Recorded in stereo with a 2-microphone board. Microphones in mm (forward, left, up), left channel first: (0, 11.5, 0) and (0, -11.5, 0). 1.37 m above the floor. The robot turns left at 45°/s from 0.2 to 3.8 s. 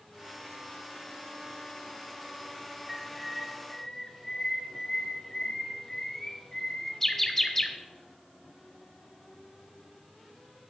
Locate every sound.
2.9 s a bird: 5° right (ahead or behind), 1.2 m; by 7.8 s 10° left (ahead or behind), 1.2 m